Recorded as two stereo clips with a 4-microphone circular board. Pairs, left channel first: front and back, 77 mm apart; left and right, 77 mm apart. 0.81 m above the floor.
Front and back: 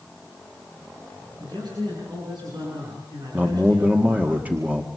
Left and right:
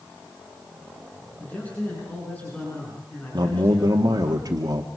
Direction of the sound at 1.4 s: 160° left.